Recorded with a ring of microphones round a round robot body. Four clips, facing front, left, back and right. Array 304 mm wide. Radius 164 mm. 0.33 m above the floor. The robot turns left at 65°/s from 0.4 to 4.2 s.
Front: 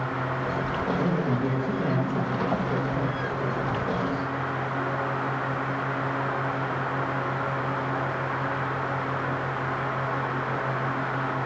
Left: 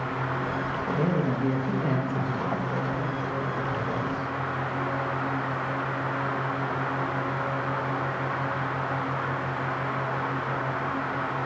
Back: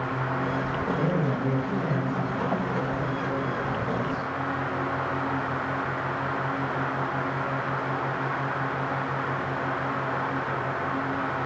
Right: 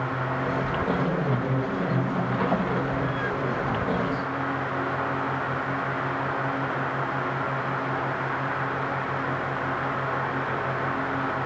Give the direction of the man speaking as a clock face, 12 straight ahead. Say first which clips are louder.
Even, even; 8 o'clock.